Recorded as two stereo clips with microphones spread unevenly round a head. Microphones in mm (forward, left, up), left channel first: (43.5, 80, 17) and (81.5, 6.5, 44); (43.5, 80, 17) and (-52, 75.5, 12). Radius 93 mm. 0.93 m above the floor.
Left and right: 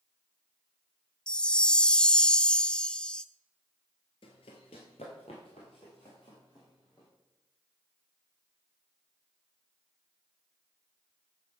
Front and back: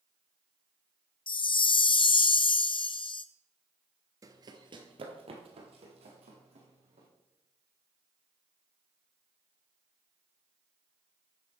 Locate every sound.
1.3 s a chime: 40° left, 0.6 m
4.2 s running footsteps: 145° left, 1.1 m; by 7.1 s 170° right, 3 m